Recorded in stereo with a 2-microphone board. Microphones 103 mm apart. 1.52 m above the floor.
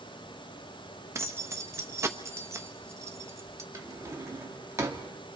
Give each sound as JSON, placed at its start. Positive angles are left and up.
{"t": 1.1, "sound": "keys jangling", "side_deg": -25, "distance_m": 1.0}
{"t": 3.7, "sound": "a drawer", "side_deg": -30, "distance_m": 1.6}